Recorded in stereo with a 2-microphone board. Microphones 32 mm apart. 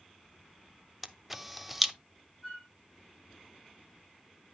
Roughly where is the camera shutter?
Centre.